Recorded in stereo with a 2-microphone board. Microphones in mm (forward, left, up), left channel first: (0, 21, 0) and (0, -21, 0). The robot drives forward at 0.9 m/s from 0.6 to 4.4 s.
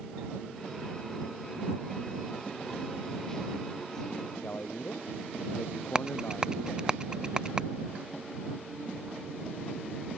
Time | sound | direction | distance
4.4 | a man speaking | 55° left (ahead or behind) | ?
6.0 | a rattle | 20° right (ahead or behind) | ?